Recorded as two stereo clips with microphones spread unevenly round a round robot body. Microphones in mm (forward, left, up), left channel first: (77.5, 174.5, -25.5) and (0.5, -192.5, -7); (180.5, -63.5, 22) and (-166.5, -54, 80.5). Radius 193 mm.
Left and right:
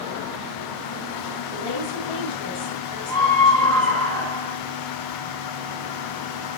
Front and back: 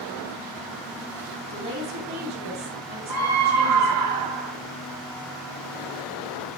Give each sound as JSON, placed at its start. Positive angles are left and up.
{"t": 1.5, "sound": "a woman speaking", "azimuth_deg": 110, "distance_m": 5.5}
{"t": 3.1, "sound": "a scream", "azimuth_deg": 160, "distance_m": 4.5}